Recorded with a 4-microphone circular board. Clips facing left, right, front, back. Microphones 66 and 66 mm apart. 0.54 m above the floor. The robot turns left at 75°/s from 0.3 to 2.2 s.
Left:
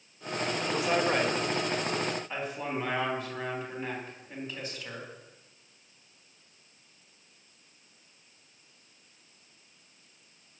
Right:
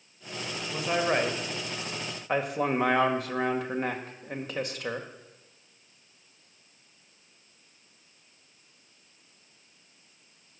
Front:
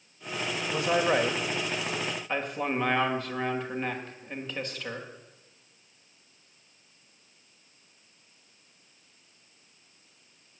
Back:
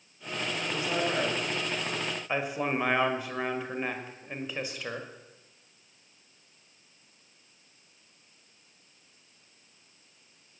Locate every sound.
0.7 s a man speaking: 10° left, 1.8 m; by 5.1 s 100° right, 1.8 m